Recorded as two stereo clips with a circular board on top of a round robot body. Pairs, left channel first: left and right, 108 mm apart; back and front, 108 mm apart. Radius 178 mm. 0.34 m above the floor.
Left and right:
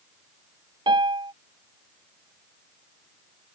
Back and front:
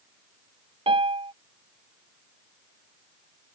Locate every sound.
0.9 s a piano: 40° right